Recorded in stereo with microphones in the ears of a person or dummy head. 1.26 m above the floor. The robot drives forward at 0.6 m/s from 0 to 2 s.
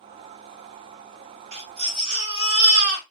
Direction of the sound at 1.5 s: 30° right (ahead or behind).